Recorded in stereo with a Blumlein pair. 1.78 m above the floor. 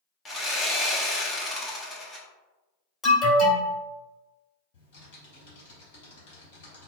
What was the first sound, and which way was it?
Sawing, 15° left.